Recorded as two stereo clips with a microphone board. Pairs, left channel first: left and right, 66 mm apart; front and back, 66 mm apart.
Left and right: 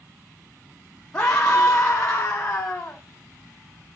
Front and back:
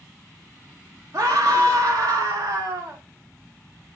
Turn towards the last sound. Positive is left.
turn(degrees=160)